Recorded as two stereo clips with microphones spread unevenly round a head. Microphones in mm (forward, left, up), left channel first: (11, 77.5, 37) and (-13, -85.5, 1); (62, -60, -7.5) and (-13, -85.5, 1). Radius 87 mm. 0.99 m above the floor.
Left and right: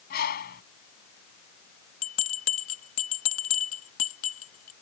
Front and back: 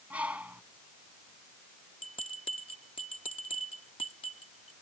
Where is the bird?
115° left.